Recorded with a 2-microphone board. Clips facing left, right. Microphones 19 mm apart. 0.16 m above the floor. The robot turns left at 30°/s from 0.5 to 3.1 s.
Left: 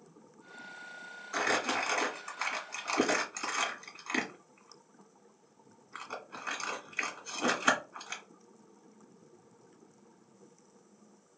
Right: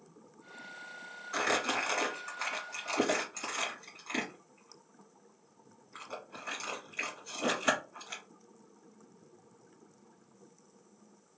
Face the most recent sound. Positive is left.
turn(degrees=25)  # may be behind; listen again after turning